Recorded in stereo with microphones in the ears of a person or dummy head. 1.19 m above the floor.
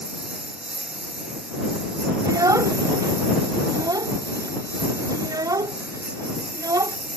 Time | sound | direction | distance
0.0 | a lawn mower | 5° right (ahead or behind) | ?
2.2 | a child speaking | 20° right (ahead or behind) | ?